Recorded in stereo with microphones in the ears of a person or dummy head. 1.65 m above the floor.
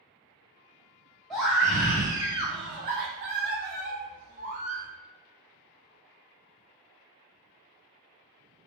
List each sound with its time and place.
1.3 s a scream: 5° left (ahead or behind), 1.2 m; by 4.9 s 40° right (ahead or behind), 1.2 m